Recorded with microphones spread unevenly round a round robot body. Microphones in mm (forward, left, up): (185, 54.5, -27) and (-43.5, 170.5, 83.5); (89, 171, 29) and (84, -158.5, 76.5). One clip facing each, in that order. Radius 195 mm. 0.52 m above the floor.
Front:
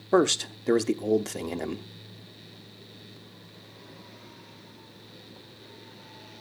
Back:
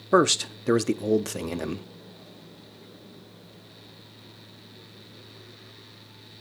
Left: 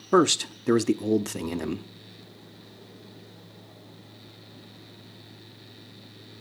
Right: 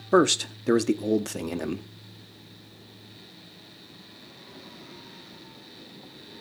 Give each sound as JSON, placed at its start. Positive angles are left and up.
{"t": 0.1, "sound": "a man speaking", "azimuth_deg": 35, "distance_m": 0.8}